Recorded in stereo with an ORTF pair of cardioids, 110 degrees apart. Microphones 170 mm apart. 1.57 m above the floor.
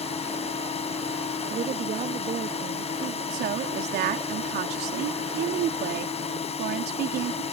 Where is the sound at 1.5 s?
50° right.